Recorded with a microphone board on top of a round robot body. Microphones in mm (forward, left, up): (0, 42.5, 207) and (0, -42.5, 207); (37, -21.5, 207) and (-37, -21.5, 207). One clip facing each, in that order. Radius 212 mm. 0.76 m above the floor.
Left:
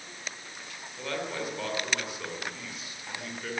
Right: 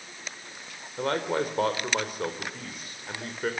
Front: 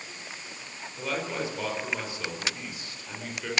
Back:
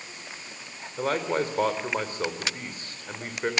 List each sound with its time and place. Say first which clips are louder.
1.0 s a man speaking: right 7 dB, back 6 dB; 135° right, 4 m